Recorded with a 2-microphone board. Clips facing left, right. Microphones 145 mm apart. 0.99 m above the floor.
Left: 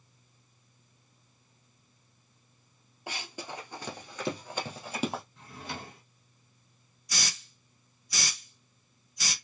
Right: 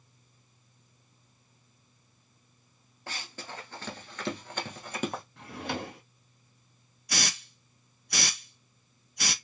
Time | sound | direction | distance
3.1 | running footsteps | 15° left (ahead or behind) | 1.1 m
5.4 | a drawer | 70° right (ahead or behind) | 0.6 m
7.1 | a hiss | 65° right (ahead or behind) | 0.6 m